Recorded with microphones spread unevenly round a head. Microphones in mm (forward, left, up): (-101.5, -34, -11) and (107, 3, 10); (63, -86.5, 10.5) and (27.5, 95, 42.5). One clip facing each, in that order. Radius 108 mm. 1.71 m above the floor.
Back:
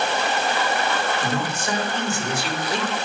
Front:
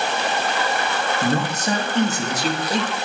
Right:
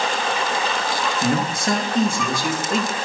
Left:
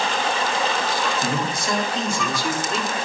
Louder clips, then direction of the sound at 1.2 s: Front 4 dB, right 3 dB; 40° right.